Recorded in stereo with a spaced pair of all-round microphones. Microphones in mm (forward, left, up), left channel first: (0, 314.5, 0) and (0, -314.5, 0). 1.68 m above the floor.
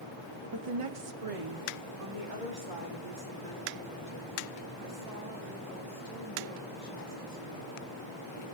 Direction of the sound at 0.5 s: 40° right (ahead or behind).